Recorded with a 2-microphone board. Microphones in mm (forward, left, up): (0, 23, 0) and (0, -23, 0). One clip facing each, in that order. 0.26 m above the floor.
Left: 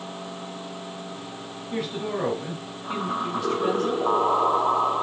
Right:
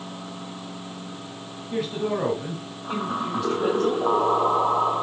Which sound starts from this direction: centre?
A woman speaking, at 1.7 s.